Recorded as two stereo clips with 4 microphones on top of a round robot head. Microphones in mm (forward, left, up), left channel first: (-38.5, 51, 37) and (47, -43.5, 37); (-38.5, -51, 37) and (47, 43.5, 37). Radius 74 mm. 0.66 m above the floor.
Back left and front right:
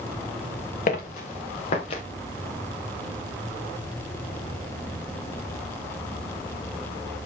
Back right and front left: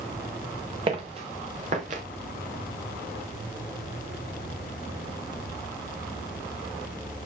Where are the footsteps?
100° left, 3.5 m; by 2.0 s 85° left, 3.5 m.